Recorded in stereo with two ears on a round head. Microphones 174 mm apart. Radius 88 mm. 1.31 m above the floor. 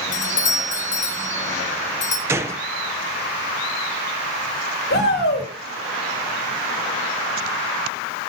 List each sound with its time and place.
0.1 s a doorbell: 40° left (ahead or behind), 1.1 m
2.3 s a gunshot: 15° right (ahead or behind), 0.5 m
4.9 s a shout: 60° left (ahead or behind), 2.5 m